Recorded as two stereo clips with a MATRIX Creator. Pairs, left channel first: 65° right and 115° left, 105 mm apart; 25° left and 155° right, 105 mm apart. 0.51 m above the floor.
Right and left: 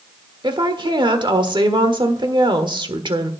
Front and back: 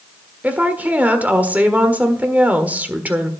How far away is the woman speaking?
About 1.4 m.